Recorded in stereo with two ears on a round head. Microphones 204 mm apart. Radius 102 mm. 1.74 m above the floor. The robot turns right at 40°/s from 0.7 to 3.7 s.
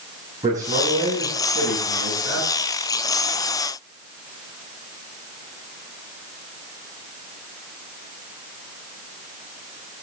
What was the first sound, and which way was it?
A man speaking, 165° right.